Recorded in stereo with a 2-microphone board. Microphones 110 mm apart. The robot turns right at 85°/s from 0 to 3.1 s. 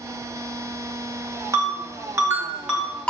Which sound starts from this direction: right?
A ringtone, at 1.5 s.